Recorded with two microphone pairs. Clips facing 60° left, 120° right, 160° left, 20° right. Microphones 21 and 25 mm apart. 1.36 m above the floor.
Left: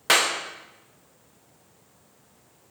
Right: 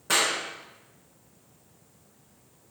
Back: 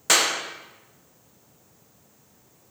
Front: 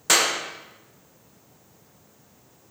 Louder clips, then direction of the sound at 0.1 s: Left 4 dB, even; 75° left.